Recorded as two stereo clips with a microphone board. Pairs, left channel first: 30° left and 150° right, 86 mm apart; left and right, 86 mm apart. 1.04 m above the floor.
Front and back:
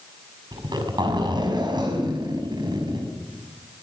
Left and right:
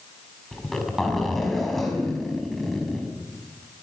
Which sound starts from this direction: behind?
A zipper, at 0.5 s.